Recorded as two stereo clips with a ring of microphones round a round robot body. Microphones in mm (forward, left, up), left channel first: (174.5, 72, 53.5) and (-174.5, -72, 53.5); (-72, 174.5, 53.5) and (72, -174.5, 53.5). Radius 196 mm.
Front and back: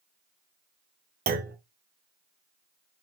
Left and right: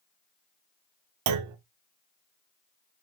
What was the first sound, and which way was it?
A clunk, 95° right.